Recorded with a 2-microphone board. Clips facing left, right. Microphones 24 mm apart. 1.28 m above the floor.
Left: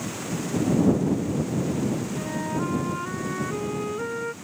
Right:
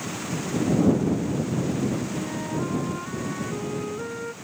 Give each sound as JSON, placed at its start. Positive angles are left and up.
{"t": 2.1, "sound": "a flute", "side_deg": 20}